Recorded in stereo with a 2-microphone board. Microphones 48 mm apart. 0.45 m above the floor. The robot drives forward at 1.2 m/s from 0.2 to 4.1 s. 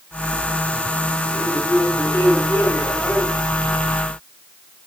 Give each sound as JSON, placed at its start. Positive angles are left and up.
{"t": 1.3, "sound": "a man speaking", "side_deg": 60, "distance_m": 2.5}